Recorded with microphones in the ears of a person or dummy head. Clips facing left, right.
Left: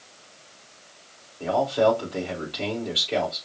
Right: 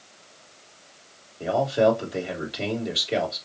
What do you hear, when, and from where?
1.4 s a man speaking: 20° right (ahead or behind), 3 m